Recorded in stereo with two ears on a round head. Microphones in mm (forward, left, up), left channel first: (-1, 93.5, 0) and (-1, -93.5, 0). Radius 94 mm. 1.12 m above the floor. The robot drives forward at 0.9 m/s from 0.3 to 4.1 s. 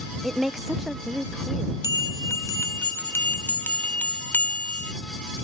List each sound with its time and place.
0.2 s a woman speaking: centre (ahead or behind)
1.8 s a bell: 20° left (ahead or behind); by 4.9 s 10° left (ahead or behind)